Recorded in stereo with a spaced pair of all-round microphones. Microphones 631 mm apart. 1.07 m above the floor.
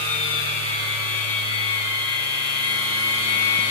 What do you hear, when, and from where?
0.0 s a machine running: 55° left (ahead or behind), 1.0 m